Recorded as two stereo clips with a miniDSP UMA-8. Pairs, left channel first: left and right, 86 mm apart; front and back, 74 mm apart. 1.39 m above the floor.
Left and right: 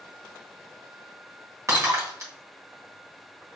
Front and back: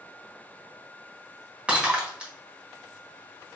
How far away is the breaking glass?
About 1.4 m.